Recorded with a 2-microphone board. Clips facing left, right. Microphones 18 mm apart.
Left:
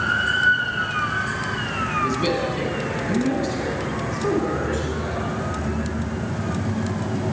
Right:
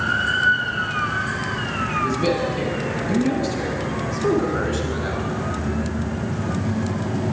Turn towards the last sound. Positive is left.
turn(degrees=-35)  # may be behind; listen again after turning